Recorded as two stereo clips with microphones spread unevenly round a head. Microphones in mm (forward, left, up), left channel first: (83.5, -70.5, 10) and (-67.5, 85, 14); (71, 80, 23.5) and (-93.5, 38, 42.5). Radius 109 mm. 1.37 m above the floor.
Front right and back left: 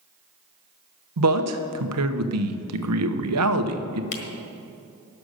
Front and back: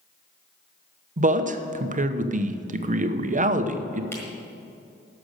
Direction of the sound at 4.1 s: 70° right.